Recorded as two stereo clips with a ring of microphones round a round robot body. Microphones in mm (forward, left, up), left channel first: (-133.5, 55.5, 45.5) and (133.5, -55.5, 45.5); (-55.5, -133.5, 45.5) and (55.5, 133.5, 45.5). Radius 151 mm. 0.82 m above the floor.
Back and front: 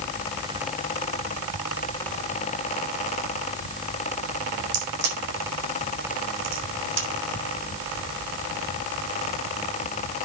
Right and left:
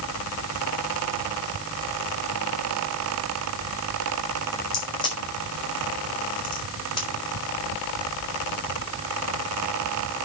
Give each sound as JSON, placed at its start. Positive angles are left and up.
{"t": 4.7, "sound": "a crack", "azimuth_deg": -40, "distance_m": 4.5}